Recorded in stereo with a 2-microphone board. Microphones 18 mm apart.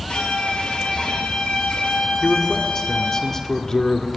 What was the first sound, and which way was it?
A violin, 80° left.